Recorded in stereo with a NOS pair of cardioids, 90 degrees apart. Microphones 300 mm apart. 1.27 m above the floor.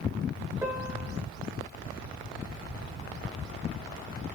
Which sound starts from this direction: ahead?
A piano, at 0.6 s.